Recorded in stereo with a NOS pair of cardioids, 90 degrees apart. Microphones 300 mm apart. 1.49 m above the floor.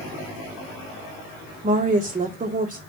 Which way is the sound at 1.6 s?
25° right.